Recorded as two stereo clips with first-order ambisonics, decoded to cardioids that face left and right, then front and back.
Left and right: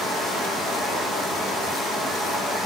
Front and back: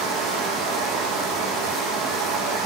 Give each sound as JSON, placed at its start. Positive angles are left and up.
{"t": 0.0, "sound": "running water", "azimuth_deg": 175, "distance_m": 6.0}